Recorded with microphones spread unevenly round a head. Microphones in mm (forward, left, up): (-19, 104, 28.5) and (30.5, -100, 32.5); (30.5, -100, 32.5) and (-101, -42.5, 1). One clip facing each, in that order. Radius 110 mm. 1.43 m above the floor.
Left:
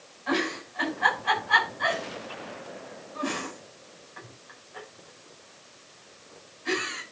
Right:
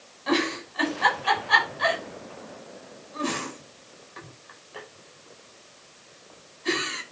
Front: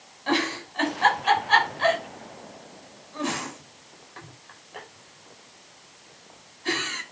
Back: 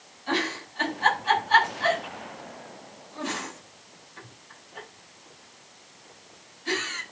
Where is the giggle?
35° right, 5.5 m.